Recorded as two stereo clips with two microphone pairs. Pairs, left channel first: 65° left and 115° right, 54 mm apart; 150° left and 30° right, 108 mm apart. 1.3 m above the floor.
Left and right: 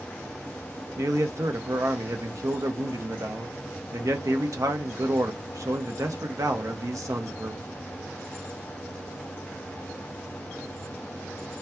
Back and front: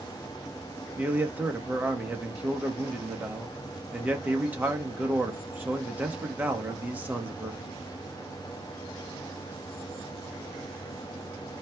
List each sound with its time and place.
1.0 s a man speaking: 105° right, 0.8 m